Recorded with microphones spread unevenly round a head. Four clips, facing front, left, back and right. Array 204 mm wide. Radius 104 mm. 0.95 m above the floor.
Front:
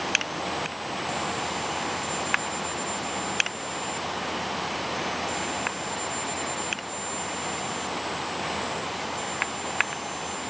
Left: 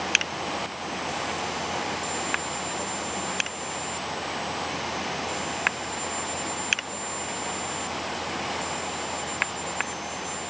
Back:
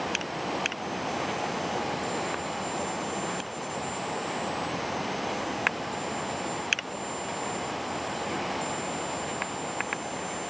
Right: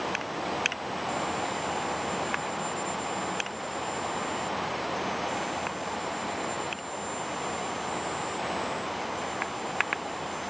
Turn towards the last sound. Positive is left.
No sound to turn to.